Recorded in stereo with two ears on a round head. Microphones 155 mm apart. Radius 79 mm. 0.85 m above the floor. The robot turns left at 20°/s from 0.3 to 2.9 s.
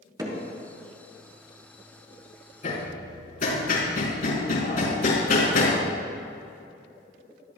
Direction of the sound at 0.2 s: 25° right (ahead or behind).